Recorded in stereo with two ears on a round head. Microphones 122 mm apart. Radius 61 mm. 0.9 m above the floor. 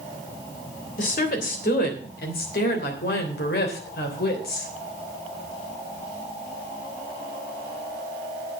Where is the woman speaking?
65° left (ahead or behind), 3 m; by 4.7 s 75° left (ahead or behind), 3.5 m.